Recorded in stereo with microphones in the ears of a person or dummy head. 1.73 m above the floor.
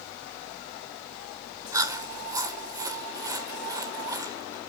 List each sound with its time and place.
1.7 s chewing: 20° right (ahead or behind), 1.4 m